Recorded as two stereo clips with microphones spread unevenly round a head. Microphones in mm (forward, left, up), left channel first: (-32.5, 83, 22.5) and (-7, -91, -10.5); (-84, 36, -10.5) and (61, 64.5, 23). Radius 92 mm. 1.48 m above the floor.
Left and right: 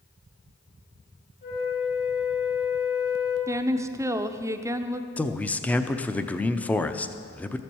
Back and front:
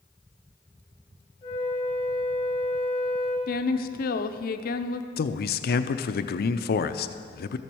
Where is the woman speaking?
150° right, 0.7 m.